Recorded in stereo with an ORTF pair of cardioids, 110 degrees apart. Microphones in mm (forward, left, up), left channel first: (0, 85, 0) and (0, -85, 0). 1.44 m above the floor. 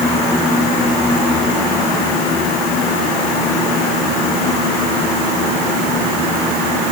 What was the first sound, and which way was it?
Only background noise.